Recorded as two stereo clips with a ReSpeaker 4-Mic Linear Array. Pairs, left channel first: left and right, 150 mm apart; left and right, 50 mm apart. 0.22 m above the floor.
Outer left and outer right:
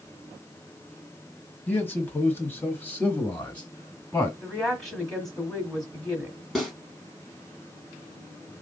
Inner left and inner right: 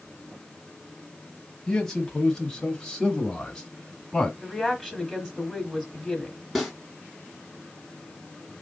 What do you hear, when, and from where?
1.7 s a man speaking: 10° left (ahead or behind), 1.3 m
4.4 s a woman speaking: centre (ahead or behind), 1.2 m
6.5 s a snare drum: centre (ahead or behind), 3 m